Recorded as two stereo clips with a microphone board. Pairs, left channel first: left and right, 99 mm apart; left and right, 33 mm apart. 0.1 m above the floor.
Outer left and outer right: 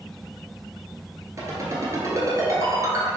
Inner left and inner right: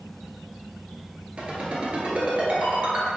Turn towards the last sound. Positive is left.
turn(degrees=-35)  # may be behind; listen again after turning